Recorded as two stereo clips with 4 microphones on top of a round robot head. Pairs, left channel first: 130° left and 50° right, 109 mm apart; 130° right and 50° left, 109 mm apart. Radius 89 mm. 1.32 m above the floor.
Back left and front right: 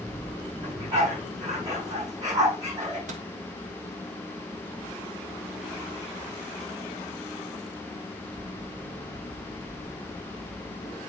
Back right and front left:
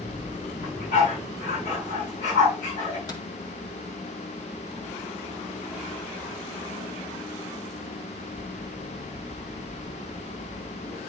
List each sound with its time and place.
0.6 s a dog barking: 115° right, 5.5 m
3.1 s a microwave: 75° right, 1.2 m